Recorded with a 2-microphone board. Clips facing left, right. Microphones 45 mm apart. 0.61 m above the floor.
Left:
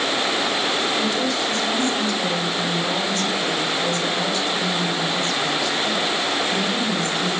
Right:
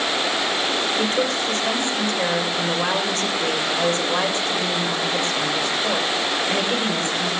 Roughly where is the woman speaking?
Right.